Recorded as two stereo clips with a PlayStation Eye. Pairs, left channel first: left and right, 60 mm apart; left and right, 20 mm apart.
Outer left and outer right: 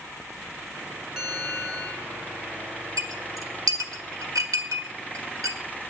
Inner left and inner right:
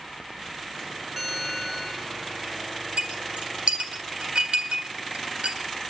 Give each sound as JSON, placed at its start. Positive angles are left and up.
{"t": 1.2, "sound": "a bell", "side_deg": -10, "distance_m": 1.6}
{"t": 3.0, "sound": "a clink", "side_deg": -80, "distance_m": 1.5}